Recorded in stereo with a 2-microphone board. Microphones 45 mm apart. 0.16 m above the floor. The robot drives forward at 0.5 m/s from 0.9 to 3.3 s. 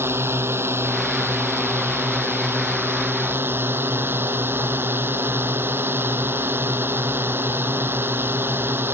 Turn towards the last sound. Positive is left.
turn(degrees=-60)  # may be behind; listen again after turning